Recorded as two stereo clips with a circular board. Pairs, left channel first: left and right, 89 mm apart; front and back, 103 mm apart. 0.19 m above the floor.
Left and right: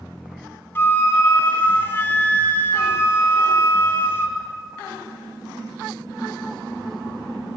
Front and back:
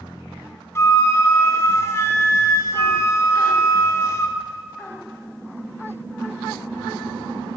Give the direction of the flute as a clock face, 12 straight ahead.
11 o'clock.